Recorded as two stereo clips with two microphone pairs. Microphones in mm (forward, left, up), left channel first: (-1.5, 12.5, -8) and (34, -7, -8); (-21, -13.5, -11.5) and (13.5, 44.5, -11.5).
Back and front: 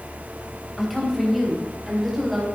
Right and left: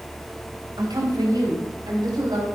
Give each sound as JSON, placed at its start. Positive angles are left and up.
{"t": 0.8, "sound": "a woman speaking", "azimuth_deg": 60, "distance_m": 3.5}